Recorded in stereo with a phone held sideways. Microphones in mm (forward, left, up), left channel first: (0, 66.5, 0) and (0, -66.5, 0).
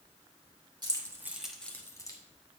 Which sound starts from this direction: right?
Keys jangling, at 0.8 s.